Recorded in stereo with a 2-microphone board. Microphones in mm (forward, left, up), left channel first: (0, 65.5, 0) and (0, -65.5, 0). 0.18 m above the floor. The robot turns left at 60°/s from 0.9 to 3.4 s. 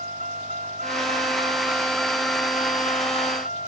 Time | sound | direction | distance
0.0 | a vehicle | 110° right | ?